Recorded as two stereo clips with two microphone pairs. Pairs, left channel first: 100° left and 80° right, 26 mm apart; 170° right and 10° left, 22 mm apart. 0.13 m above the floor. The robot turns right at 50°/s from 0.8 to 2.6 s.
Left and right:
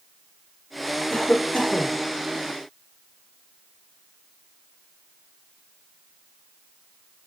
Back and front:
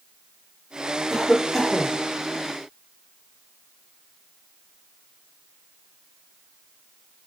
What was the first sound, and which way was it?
A cough, 90° left.